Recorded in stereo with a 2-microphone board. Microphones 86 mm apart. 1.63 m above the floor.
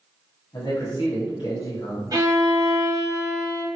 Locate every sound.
0.5 s a man speaking: 55° left (ahead or behind), 1.4 m
2.1 s a violin: 45° right (ahead or behind), 0.8 m